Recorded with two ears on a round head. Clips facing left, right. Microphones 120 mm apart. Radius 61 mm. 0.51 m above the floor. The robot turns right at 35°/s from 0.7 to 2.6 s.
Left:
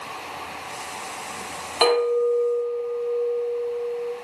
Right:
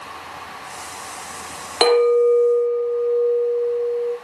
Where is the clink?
50° right (ahead or behind), 0.9 m; by 4.1 s 45° right (ahead or behind), 0.9 m.